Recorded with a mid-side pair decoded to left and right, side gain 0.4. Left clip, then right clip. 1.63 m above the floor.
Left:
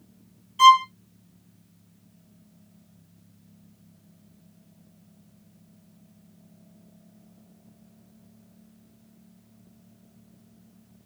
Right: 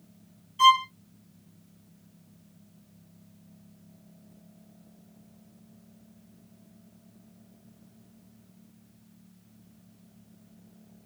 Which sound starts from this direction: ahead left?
A violin, at 0.6 s.